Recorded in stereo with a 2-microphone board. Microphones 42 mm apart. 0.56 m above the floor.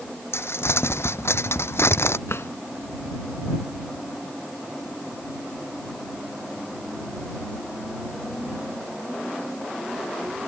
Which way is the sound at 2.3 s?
80° left.